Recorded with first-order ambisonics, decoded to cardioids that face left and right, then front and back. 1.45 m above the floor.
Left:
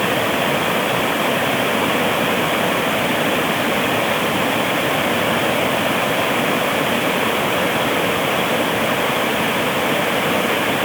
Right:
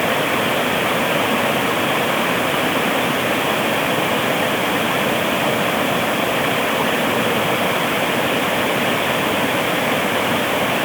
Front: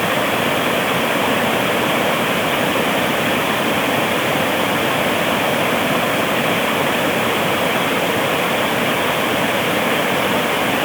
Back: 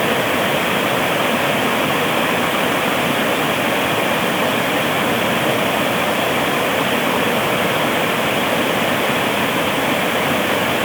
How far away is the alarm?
I don't hear an alarm.